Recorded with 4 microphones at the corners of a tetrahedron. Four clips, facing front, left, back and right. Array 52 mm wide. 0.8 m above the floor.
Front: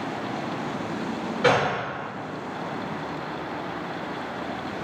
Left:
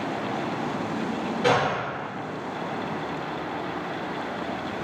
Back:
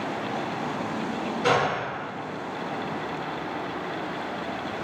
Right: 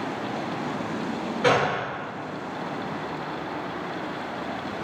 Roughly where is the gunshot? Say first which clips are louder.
Right 1 dB, front 2 dB; ahead right.